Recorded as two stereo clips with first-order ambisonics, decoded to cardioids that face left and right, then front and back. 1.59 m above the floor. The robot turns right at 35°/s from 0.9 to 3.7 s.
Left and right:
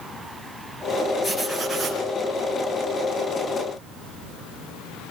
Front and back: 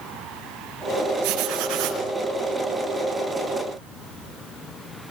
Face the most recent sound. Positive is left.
turn(degrees=-105)